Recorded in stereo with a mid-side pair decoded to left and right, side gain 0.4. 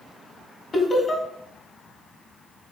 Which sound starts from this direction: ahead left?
Laughter, at 0.7 s.